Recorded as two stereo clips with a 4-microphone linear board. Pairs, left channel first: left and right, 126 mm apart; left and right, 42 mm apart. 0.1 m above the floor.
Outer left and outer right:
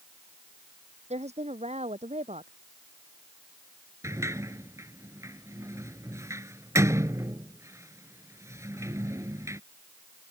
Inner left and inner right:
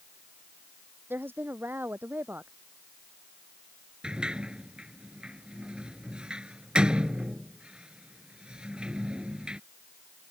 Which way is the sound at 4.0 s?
25° right (ahead or behind).